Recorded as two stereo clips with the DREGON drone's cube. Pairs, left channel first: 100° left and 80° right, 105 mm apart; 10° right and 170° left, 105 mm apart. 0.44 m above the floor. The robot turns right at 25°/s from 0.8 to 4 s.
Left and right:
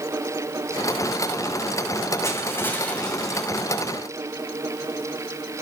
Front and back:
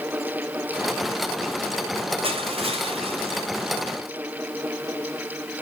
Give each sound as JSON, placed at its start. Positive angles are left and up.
{"t": 2.2, "sound": "crushing", "azimuth_deg": 160, "distance_m": 2.0}